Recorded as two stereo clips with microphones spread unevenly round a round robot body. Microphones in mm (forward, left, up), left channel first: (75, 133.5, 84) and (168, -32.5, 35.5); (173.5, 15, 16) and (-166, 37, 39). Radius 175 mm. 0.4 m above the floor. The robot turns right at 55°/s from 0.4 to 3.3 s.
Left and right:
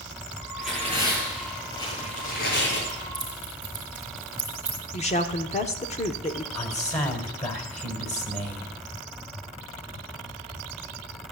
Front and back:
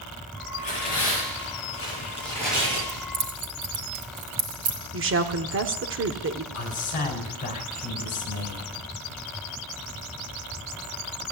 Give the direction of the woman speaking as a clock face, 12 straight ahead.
6 o'clock.